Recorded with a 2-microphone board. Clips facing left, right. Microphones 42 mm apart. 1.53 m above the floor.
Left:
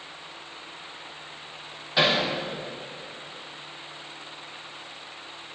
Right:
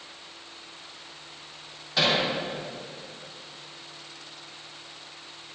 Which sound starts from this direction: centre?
Hammering, at 2.0 s.